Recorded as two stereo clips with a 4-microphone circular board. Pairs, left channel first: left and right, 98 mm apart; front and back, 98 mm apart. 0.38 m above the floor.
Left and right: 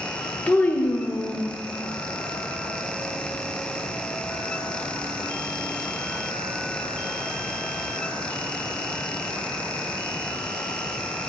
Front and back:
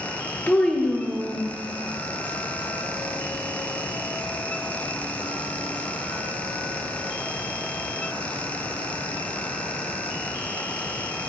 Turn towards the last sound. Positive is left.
turn(degrees=110)